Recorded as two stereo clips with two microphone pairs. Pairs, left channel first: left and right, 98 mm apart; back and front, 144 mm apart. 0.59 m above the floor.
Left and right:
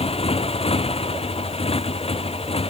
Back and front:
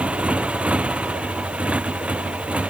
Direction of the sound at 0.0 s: 85° left.